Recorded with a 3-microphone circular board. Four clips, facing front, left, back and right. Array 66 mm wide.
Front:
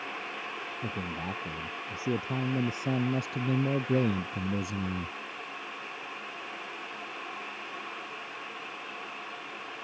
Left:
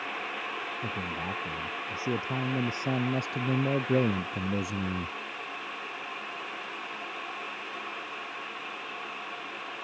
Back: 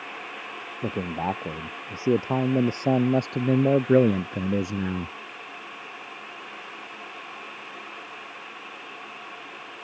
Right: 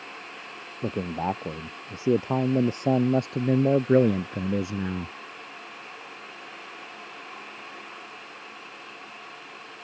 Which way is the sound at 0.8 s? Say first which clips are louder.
Right 12 dB, back 10 dB; 135° right.